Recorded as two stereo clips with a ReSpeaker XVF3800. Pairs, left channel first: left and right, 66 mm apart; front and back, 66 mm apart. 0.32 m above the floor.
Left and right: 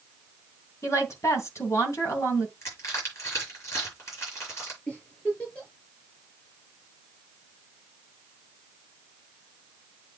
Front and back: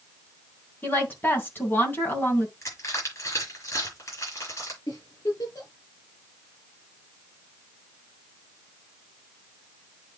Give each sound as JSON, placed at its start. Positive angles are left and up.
{"t": 0.8, "sound": "a woman speaking", "azimuth_deg": 55, "distance_m": 3.0}
{"t": 2.6, "sound": "crushing", "azimuth_deg": 45, "distance_m": 7.5}
{"t": 4.9, "sound": "a giggle", "azimuth_deg": 20, "distance_m": 6.0}